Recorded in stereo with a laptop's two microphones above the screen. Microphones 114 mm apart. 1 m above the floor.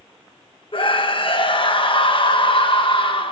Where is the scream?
50° left (ahead or behind), 1.1 m.